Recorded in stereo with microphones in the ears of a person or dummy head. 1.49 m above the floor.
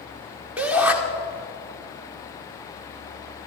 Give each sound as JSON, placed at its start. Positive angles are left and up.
{"t": 0.6, "sound": "a shout", "side_deg": -10, "distance_m": 1.5}